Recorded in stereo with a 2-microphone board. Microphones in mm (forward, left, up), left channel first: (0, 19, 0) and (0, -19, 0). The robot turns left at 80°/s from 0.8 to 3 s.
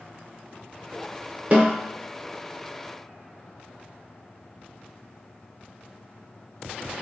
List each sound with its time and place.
1.5 s a snare drum: 40° right (ahead or behind), 0.7 m; by 1.8 s 20° right (ahead or behind), 0.7 m